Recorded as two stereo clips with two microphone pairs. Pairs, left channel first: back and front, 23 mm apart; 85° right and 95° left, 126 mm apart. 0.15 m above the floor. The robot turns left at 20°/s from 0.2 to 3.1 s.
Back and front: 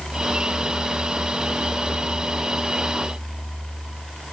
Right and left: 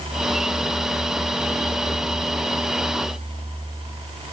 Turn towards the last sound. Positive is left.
No sound to turn to.